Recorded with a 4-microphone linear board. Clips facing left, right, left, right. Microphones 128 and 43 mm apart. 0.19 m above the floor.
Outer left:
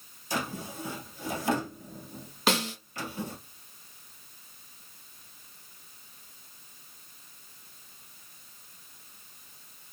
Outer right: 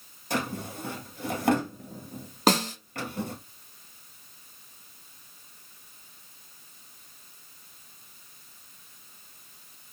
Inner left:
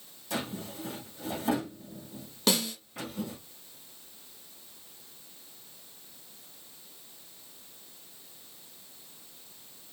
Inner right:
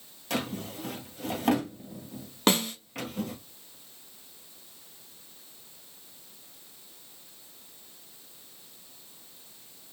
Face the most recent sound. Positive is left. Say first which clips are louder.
# outer right 4 dB, inner right 3 dB
turn(degrees=-40)  # may be behind; listen again after turning